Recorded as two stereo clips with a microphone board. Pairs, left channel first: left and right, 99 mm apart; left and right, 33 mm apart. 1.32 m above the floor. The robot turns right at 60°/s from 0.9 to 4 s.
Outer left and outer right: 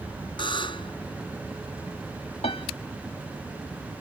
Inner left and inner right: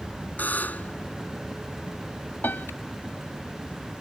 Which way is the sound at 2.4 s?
85° left.